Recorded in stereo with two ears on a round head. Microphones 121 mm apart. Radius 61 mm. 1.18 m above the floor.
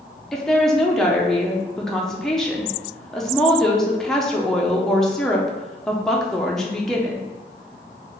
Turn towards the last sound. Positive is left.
turn(degrees=5)  # may be behind; listen again after turning